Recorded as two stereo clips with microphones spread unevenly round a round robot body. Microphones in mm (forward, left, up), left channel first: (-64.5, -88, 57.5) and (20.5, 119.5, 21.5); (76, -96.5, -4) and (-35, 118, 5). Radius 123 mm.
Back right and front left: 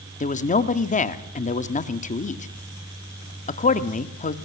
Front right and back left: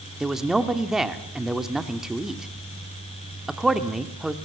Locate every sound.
0.2 s a man speaking: 155° right, 1.5 m